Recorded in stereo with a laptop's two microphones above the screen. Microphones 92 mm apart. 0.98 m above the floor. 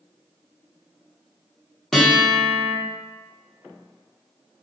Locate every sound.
1.9 s a guitar: 5° left (ahead or behind), 0.9 m